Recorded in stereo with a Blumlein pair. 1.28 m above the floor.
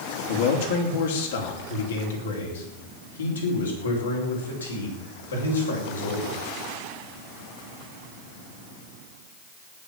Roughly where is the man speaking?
Ahead left.